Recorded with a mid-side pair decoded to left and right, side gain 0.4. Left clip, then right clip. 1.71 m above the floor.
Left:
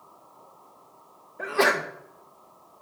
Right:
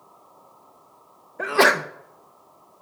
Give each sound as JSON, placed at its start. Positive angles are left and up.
{"t": 1.4, "sound": "a sneeze", "azimuth_deg": -50, "distance_m": 0.6}